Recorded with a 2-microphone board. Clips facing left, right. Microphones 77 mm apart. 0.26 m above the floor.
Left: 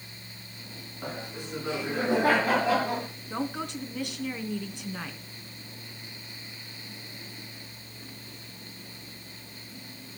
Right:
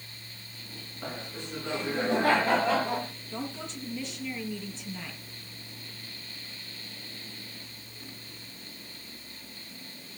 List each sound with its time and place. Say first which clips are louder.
1.0 s laughter: left 1 dB; 10° left (ahead or behind), 8.5 m
3.3 s a woman speaking: left 7 dB; 65° left (ahead or behind), 3 m